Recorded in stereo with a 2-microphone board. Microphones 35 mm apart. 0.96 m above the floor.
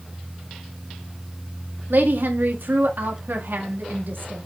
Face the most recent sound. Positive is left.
turn(degrees=-70)  # may be behind; listen again after turning